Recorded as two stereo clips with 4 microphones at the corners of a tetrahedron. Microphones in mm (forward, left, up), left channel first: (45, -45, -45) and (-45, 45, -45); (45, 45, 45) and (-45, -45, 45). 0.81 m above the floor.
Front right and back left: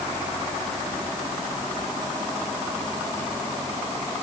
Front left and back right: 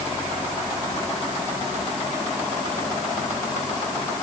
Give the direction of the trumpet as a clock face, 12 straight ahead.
I don't hear a trumpet.